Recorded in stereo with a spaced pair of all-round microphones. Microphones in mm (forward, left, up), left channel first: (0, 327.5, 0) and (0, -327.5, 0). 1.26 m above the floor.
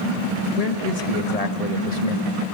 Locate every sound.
0.6 s a man speaking: 65° left (ahead or behind), 1.8 m